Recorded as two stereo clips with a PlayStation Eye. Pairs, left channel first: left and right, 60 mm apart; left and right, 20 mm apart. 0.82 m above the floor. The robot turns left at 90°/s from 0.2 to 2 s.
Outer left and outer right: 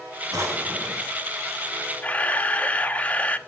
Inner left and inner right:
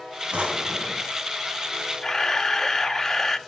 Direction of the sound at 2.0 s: 25° left (ahead or behind).